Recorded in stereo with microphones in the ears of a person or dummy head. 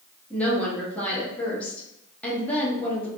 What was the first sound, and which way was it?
A woman speaking, 5° left (ahead or behind).